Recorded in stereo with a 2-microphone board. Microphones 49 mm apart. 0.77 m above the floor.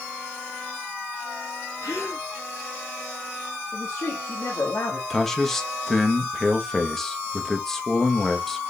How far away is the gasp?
About 3.5 m.